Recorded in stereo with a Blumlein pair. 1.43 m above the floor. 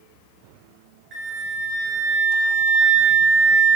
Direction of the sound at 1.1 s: 20° right.